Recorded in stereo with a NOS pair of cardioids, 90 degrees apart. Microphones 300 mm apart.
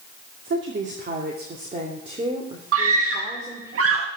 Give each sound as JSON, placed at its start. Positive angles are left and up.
{"t": 0.5, "sound": "a woman speaking", "azimuth_deg": -40, "distance_m": 2.5}
{"t": 2.7, "sound": "a scream", "azimuth_deg": -50, "distance_m": 1.6}